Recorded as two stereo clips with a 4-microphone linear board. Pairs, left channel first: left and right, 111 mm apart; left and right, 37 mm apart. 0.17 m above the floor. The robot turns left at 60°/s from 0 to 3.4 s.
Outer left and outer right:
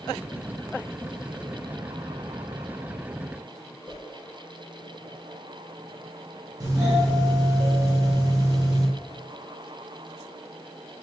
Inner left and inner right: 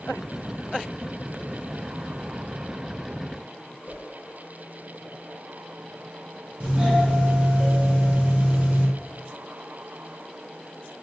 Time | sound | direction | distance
3.9 | a whoosh | 65° right (ahead or behind) | 2 m
6.6 | a doorbell | 35° right (ahead or behind) | 1.9 m